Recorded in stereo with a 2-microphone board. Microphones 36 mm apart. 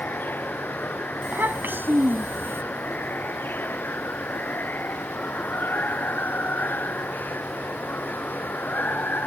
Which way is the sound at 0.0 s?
60° left (ahead or behind).